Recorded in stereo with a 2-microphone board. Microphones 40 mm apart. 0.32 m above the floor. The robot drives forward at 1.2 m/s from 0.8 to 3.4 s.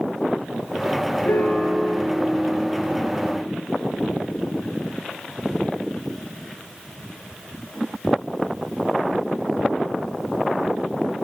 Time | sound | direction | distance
1.2 | a piano | 70° left (ahead or behind) | 1.0 m